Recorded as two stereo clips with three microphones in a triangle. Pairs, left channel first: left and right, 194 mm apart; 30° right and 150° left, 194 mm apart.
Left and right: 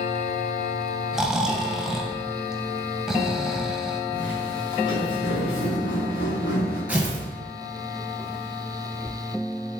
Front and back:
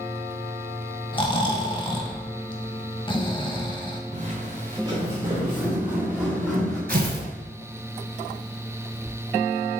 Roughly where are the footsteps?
Left.